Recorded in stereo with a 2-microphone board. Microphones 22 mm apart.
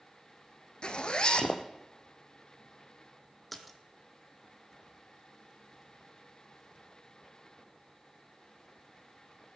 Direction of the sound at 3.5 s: Centre (ahead or behind).